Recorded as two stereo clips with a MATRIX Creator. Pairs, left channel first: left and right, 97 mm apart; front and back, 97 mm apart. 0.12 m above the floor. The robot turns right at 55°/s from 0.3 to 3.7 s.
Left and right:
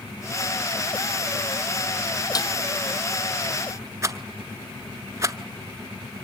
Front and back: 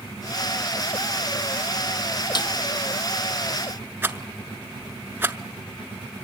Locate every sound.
2.4 s a snare drum: 40° left, 1.0 m; by 2.5 s 50° left, 1.0 m
4.0 s a rattle: 125° right, 0.5 m